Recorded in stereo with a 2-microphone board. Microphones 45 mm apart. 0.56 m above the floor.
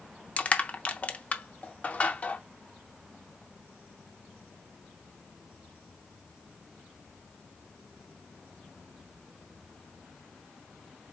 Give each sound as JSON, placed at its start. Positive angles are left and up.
{"t": 0.4, "sound": "crushing", "side_deg": 35, "distance_m": 0.5}